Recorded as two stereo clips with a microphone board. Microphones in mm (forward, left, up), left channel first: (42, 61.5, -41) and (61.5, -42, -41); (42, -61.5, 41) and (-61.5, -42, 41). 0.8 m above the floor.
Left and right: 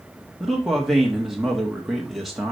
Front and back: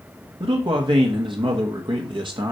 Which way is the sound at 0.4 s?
165° right.